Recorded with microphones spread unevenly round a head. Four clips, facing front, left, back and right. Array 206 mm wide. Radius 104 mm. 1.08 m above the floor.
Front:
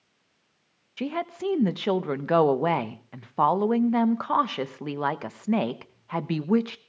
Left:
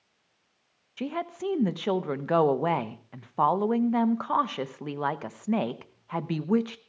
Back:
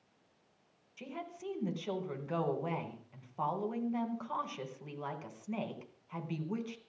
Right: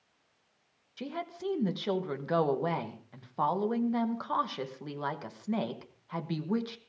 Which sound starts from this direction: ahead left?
A woman speaking, at 1.0 s.